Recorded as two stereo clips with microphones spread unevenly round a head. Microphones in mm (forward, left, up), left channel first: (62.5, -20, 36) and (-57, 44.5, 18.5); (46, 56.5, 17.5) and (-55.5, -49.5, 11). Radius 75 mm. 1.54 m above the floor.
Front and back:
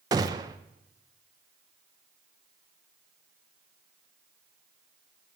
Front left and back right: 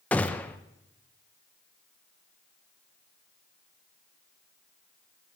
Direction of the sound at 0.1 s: 105° left.